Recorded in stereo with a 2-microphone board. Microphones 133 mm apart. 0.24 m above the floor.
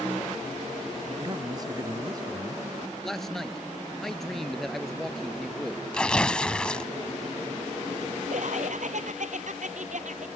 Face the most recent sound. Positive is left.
turn(degrees=-65)  # may be behind; listen again after turning